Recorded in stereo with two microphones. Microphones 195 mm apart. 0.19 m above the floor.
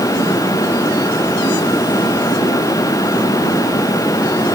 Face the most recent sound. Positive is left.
No sound to turn to.